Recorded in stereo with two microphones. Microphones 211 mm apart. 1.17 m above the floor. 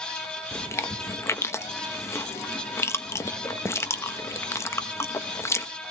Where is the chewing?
15° left (ahead or behind), 0.8 m.